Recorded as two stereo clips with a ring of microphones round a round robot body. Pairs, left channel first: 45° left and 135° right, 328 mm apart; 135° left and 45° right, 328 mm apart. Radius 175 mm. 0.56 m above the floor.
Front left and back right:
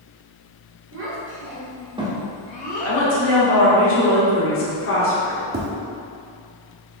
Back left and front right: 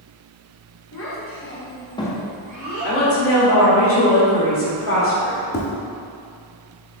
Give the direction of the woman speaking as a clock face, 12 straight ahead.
9 o'clock.